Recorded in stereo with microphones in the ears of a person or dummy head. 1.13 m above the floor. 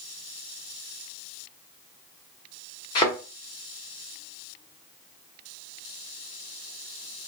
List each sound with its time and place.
3.0 s a thud: 20° left (ahead or behind), 0.8 m